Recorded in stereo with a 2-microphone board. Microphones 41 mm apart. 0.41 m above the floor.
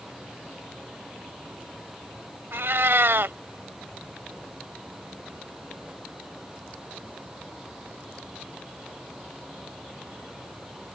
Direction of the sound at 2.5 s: 65° right (ahead or behind).